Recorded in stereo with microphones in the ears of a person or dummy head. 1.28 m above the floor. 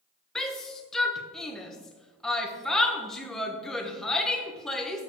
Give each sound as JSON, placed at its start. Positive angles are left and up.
{"t": 0.3, "sound": "a shout", "side_deg": 5, "distance_m": 1.1}